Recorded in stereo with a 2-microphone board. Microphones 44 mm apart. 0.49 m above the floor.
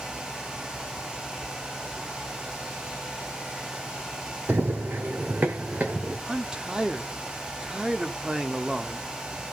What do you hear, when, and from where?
4.5 s running footsteps: 55° right (ahead or behind), 1.0 m; by 6.2 s 35° right (ahead or behind), 2.5 m
6.3 s a man speaking: 20° right (ahead or behind), 1.1 m